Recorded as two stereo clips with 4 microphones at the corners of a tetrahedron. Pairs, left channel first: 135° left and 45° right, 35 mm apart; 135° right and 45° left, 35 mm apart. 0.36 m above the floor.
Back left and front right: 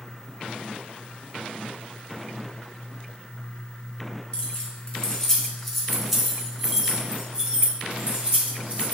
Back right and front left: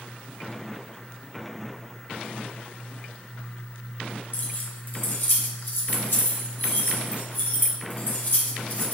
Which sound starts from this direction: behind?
Keys jangling, at 4.3 s.